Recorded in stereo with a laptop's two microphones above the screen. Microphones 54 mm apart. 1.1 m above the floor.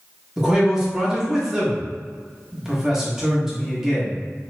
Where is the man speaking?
10° right (ahead or behind), 1.2 m.